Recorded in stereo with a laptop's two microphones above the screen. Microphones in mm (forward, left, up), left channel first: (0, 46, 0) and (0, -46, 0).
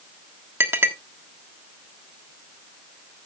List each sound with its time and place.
0.6 s a clink: 25° right (ahead or behind), 1.3 m